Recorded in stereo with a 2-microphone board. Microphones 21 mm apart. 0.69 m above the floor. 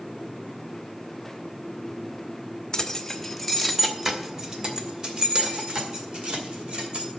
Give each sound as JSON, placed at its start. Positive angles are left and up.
{"t": 2.7, "sound": "keys jangling", "side_deg": 30, "distance_m": 1.0}